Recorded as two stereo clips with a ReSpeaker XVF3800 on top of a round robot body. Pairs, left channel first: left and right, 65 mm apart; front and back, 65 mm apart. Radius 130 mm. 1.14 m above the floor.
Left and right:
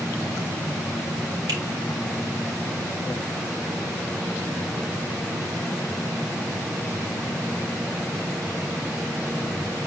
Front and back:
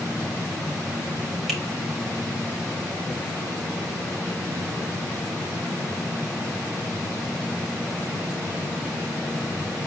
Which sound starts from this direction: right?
A finger snap, at 1.5 s.